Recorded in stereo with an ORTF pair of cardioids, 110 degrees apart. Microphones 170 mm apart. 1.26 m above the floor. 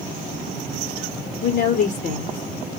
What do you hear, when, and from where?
1.4 s a woman speaking: 65° left, 0.8 m